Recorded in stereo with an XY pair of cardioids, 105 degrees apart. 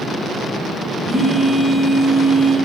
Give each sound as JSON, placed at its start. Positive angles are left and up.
{"t": 1.1, "sound": "a phone buzzing", "azimuth_deg": -10, "distance_m": 3.0}